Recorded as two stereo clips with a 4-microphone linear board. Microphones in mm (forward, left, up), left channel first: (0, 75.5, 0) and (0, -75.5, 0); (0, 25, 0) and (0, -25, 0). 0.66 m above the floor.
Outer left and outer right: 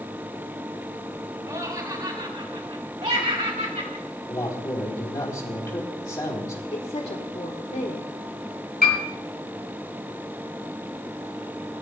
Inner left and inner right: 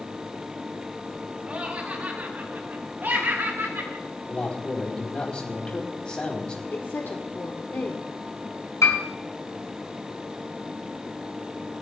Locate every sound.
1.5 s laughter: 30° right (ahead or behind), 2 m; by 4.0 s 65° right (ahead or behind), 3.5 m
4.3 s a man speaking: 30° left (ahead or behind), 3.5 m
6.7 s a woman speaking: 45° left (ahead or behind), 1.6 m
8.8 s a piano: 85° left, 4 m